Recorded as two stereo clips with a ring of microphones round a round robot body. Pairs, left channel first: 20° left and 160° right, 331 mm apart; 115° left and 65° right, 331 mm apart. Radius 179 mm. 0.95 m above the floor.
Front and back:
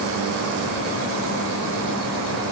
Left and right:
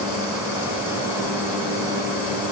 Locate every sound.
Only background noise.